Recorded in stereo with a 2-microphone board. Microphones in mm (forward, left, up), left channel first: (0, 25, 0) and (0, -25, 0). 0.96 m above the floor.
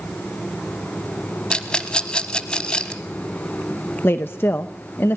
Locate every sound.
1.5 s a rattle: 20° left (ahead or behind), 1.3 m
4.0 s a woman speaking: 45° left (ahead or behind), 0.8 m